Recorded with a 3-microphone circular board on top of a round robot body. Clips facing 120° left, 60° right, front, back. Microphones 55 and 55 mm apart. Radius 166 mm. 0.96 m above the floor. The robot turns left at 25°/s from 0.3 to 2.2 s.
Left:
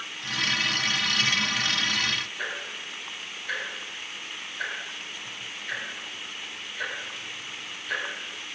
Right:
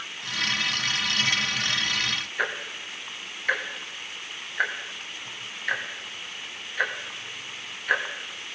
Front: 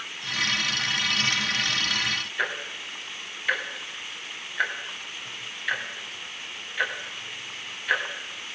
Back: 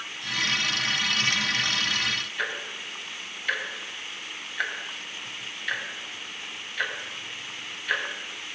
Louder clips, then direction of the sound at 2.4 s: Right 4 dB, front 2 dB; 80° right.